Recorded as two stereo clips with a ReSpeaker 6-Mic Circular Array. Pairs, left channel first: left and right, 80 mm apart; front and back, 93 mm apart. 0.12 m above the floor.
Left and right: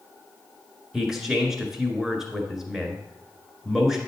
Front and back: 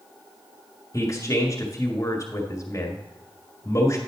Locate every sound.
0.9 s a man speaking: 10° right, 1.6 m